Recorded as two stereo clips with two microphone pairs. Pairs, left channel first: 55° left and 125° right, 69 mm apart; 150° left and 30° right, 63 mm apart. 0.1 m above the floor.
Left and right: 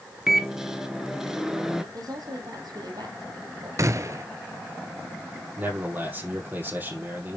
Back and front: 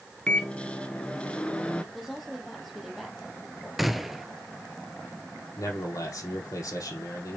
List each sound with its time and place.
0.3 s a microwave: 170° left, 1.1 m
1.9 s a woman speaking: 120° right, 3 m
3.8 s a gunshot: 120° right, 0.5 m
5.6 s a man speaking: 175° left, 4 m